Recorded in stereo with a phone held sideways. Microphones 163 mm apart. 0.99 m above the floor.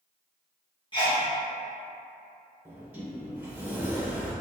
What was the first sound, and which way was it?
A sneeze, 30° left (ahead or behind).